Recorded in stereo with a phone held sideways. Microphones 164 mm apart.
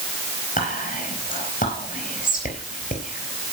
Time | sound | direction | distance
0.6 | whispering | 55° left (ahead or behind) | 4.5 m